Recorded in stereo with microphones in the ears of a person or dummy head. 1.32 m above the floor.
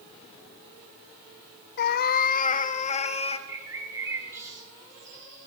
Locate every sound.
1.8 s a cat meowing: 60° left (ahead or behind), 0.8 m; by 3.4 s 45° left (ahead or behind), 1.5 m
3.5 s a bird: 25° right (ahead or behind), 4.5 m